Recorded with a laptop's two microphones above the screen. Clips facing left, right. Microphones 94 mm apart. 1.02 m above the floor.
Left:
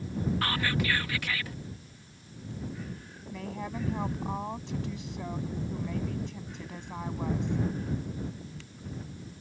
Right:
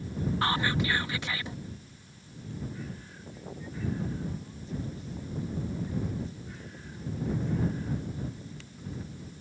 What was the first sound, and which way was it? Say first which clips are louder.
Whispering: right 5 dB; 25° right (ahead or behind).